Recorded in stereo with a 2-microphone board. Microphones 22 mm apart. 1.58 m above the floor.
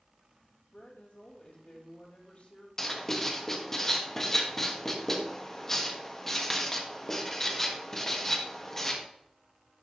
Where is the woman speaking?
75° left (ahead or behind), 3 m.